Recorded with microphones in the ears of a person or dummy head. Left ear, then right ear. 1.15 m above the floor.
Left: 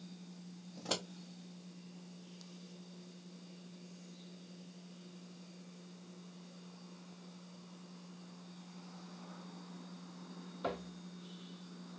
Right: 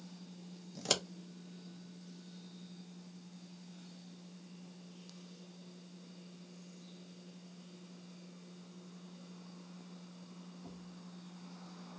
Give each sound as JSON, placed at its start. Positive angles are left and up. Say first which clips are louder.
{"t": 0.8, "sound": "scissors", "louder": "right 5 dB", "side_deg": -75, "distance_m": 0.8}